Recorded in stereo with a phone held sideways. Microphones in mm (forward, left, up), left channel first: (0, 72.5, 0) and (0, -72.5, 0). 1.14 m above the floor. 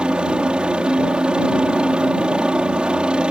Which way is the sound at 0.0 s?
5° right (ahead or behind).